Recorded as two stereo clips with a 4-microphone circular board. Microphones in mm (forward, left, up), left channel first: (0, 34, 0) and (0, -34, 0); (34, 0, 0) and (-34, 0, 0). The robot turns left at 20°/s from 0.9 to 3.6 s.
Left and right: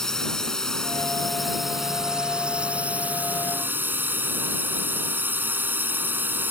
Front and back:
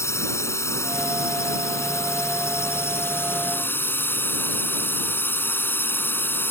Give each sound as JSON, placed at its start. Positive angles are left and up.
{"t": 0.0, "sound": "a drone", "azimuth_deg": 10}